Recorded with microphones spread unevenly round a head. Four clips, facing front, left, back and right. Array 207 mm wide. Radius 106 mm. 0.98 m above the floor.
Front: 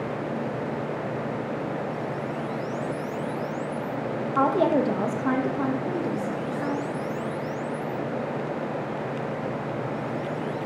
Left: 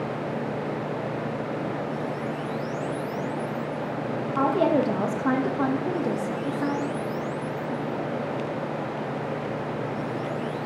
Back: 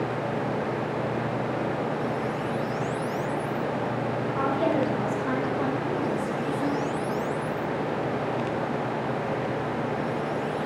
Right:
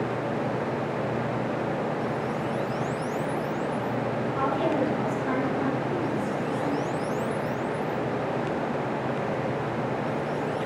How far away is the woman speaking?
About 1.2 m.